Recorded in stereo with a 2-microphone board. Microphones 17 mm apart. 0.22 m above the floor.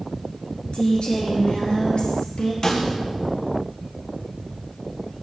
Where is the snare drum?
30° left (ahead or behind), 1.7 m.